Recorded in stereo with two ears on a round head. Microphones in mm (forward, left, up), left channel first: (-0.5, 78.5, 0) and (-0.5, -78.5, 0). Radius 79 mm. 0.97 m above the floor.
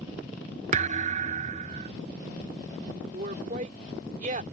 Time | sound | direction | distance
0.7 | a thud | 45° right (ahead or behind) | ?
3.1 | a woman speaking | 45° right (ahead or behind) | ?